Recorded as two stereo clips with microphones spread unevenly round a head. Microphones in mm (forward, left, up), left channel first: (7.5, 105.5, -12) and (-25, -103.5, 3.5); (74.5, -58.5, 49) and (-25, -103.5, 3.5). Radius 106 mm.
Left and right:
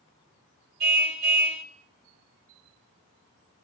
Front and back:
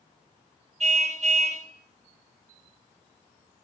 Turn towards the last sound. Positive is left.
turn(degrees=-135)